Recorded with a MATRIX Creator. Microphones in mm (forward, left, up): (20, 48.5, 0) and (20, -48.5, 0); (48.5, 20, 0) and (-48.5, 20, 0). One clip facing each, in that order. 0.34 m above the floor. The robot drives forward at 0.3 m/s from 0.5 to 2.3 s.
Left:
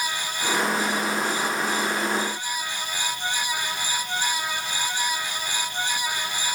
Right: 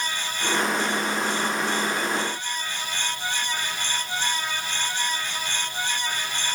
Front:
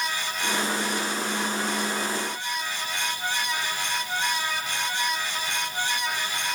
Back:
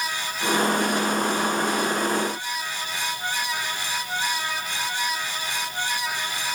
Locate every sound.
Only background noise.